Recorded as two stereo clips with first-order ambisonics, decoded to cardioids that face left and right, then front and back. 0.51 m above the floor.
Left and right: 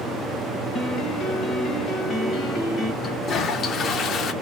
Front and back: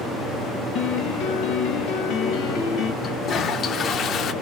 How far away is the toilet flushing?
About 0.5 m.